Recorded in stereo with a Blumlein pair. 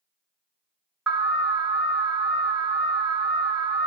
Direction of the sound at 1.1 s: 10° right.